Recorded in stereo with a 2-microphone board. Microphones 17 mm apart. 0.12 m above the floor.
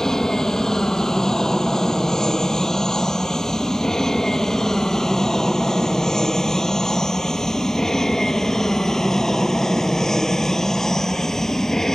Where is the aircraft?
25° left (ahead or behind); by 11.9 s 20° left (ahead or behind).